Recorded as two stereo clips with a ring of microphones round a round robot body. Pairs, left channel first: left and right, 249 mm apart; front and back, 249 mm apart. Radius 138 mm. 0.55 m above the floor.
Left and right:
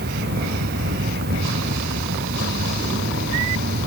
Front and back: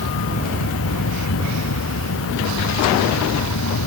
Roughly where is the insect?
Ahead right.